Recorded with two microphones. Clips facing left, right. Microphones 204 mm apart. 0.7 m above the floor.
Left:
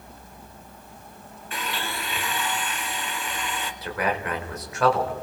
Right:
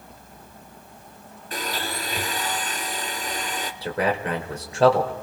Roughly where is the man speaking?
Right.